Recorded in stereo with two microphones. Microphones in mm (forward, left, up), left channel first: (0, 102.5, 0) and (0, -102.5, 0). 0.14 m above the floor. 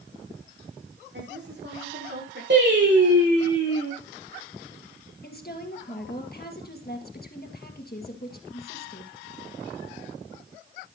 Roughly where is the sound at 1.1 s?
Right.